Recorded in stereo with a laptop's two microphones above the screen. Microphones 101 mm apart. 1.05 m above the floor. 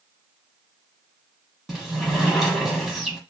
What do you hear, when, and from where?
1.7 s a sliding door: centre (ahead or behind), 1.0 m